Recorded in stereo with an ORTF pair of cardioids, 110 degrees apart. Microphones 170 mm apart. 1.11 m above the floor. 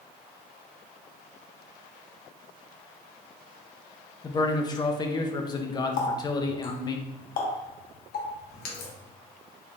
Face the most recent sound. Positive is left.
turn(degrees=60)